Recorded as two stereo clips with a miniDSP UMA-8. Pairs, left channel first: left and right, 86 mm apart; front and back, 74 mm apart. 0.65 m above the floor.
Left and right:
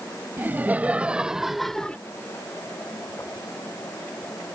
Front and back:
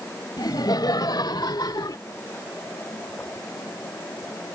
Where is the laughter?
25° right; by 2.0 s 15° left.